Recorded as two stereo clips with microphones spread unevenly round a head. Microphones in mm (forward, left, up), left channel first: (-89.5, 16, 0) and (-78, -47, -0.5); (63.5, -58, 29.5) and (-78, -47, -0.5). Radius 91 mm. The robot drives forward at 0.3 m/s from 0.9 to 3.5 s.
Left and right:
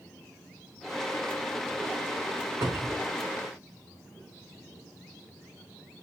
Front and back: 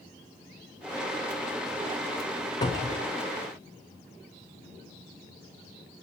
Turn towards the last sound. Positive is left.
turn(degrees=-110)